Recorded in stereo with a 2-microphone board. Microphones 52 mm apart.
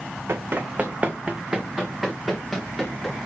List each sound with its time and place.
0.3 s running footsteps: 55° right (ahead or behind), 1.2 m; by 3.2 s 5° left (ahead or behind), 4 m